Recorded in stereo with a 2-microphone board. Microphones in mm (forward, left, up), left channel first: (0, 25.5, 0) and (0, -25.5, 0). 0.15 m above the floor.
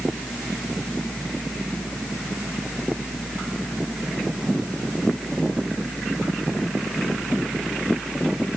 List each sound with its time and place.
Only background noise.